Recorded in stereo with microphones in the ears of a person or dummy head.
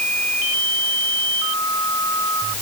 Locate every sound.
Only background noise.